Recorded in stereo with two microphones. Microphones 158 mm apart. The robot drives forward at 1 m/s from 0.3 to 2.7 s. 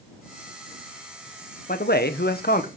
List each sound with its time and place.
1.7 s a man speaking: 60° left (ahead or behind), 1.0 m; by 2.7 s 55° left (ahead or behind), 1.0 m